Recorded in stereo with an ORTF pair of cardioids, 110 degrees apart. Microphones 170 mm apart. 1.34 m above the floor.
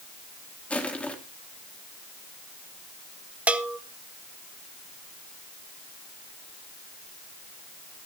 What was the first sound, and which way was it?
Crushing, 5° left.